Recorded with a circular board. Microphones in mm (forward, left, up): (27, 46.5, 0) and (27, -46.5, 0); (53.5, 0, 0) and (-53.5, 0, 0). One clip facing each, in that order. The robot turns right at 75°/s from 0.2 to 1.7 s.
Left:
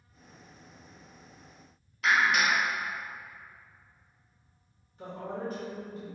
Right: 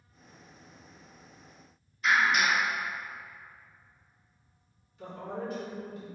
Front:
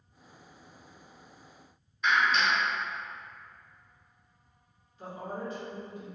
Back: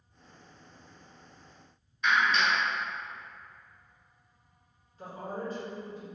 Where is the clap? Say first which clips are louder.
Even, even; 90° left, 1.1 m.